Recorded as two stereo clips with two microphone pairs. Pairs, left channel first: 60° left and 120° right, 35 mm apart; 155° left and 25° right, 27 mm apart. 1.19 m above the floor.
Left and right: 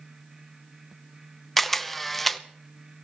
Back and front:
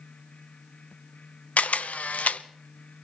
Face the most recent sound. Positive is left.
turn(degrees=140)